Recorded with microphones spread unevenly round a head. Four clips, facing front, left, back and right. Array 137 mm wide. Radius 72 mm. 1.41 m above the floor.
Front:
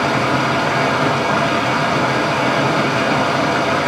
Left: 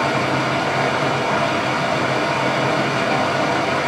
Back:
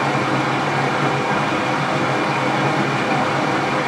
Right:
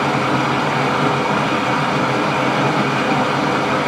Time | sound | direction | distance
0.0 | running water | 65° right | 2.0 m